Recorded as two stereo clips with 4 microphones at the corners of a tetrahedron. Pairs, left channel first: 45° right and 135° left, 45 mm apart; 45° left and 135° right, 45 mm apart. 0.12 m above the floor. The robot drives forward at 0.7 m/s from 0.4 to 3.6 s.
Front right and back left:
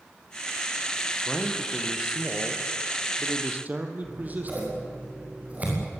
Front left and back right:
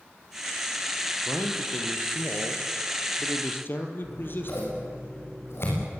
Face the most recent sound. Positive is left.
turn(degrees=75)